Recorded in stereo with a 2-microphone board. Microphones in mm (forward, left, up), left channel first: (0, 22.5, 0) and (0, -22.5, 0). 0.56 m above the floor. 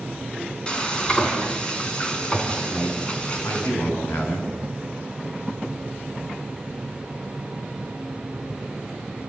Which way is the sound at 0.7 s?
25° left (ahead or behind).